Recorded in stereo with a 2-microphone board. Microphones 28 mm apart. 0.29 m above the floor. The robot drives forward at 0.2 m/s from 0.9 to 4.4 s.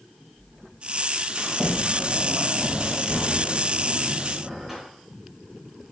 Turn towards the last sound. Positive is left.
turn(degrees=-20)  # may be behind; listen again after turning